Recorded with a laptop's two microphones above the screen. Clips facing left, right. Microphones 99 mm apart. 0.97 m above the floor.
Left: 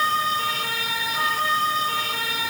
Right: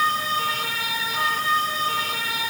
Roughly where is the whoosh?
No whoosh in this recording.